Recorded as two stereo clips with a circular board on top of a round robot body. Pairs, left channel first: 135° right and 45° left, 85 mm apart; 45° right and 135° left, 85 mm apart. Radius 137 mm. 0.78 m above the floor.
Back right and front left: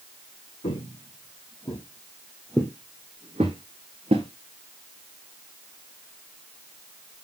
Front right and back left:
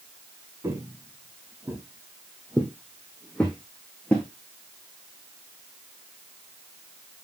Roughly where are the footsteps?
Behind.